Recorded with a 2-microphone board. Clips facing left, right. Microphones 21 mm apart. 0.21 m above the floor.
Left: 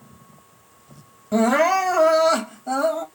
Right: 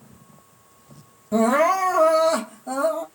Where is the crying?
20° left (ahead or behind), 1.0 m.